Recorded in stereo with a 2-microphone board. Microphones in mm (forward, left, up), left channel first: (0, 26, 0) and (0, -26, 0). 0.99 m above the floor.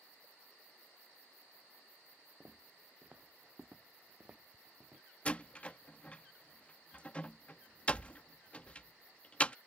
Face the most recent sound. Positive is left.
turn(degrees=25)  # may be behind; listen again after turning